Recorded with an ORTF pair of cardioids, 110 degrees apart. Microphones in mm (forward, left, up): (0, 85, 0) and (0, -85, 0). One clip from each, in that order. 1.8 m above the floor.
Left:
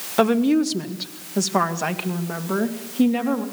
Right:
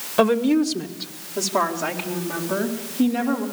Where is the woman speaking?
5° left, 1.6 m; by 3.5 s 70° left, 3.5 m.